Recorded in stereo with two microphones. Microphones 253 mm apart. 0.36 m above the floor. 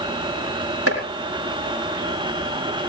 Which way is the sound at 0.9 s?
65° right (ahead or behind).